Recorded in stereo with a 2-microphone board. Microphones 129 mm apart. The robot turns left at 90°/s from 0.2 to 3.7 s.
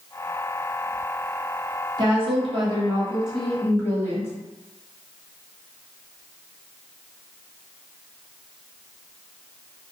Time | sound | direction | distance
2.0 | a woman speaking | 55° right | 1.2 m